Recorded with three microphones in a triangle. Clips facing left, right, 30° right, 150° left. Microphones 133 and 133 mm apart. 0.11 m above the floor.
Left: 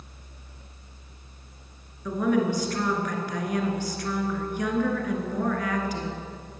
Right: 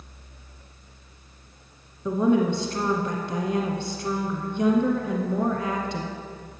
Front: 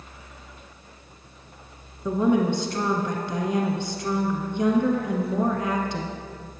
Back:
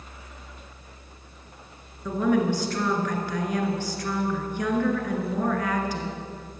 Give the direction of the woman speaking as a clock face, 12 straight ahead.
2 o'clock.